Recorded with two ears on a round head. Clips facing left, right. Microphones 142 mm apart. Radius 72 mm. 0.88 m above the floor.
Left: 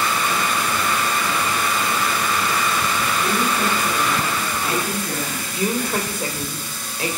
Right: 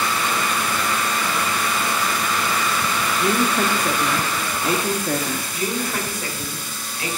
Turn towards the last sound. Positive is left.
turn(degrees=25)  # may be behind; listen again after turning